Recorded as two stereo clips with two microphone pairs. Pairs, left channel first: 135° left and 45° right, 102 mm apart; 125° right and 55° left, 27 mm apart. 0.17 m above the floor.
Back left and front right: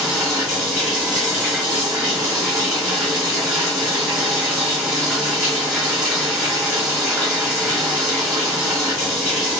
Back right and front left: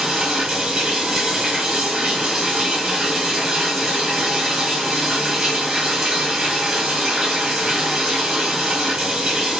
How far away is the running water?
About 1.2 m.